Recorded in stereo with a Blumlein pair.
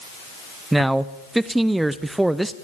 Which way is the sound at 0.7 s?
5° right.